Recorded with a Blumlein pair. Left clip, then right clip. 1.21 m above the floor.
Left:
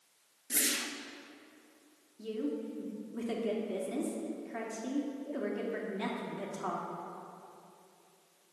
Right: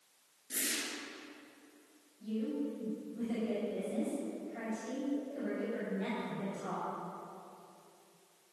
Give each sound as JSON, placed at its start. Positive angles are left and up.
{"t": 0.5, "sound": "a whoosh", "azimuth_deg": 65, "distance_m": 0.8}
{"t": 2.2, "sound": "a woman speaking", "azimuth_deg": 40, "distance_m": 2.5}